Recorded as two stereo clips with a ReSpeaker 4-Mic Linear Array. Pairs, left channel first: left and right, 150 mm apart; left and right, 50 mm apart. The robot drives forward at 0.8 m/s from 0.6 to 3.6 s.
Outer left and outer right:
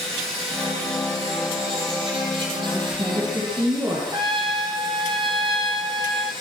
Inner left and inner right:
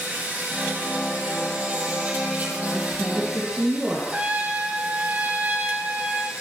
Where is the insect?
40° right (ahead or behind), 8 m; by 6.4 s 30° right (ahead or behind), 10 m.